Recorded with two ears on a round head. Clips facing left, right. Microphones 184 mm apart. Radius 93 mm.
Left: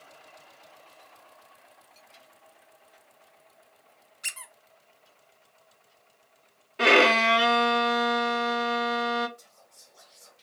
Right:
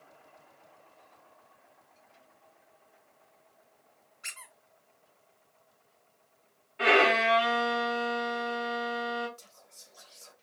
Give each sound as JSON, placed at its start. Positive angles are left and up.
{"t": 4.2, "sound": "a squeak", "side_deg": 45, "distance_m": 0.7}
{"t": 6.8, "sound": "a violin", "side_deg": 50, "distance_m": 0.6}
{"t": 9.4, "sound": "whispering", "side_deg": -35, "distance_m": 1.1}